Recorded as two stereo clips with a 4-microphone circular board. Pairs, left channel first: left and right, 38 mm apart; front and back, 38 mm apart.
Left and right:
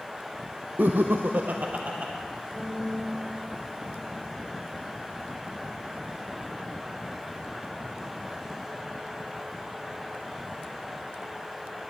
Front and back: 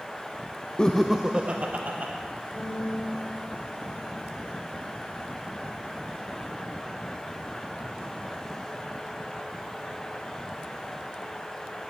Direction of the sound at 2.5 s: 10° left.